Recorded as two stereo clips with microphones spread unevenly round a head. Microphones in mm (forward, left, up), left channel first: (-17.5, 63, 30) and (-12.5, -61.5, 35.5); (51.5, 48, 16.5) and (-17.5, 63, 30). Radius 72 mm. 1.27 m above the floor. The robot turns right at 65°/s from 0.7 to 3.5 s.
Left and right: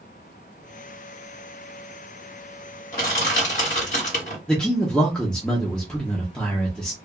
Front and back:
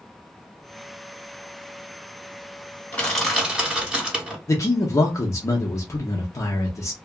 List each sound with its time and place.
2.9 s crushing: 55° left, 1.9 m; by 4.4 s 95° left, 1.9 m
4.5 s a man speaking: 10° left, 0.7 m